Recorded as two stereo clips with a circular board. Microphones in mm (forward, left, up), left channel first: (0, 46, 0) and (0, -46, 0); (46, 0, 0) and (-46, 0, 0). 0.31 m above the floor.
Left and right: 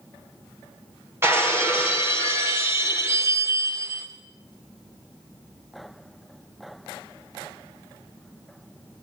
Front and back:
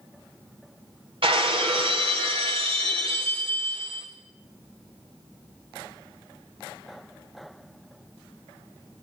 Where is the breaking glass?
155° right, 5 m.